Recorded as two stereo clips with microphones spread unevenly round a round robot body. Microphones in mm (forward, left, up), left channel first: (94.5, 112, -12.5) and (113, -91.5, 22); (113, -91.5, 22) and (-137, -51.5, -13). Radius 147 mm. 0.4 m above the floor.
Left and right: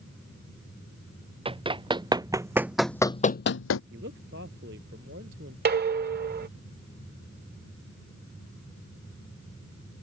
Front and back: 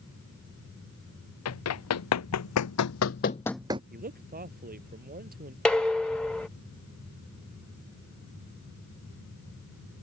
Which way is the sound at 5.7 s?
105° right.